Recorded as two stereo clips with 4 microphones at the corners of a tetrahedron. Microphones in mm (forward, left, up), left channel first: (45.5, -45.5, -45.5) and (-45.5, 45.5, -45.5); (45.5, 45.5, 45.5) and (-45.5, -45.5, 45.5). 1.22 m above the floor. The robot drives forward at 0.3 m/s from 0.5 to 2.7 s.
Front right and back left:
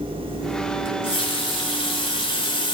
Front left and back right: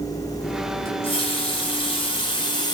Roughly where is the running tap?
Ahead.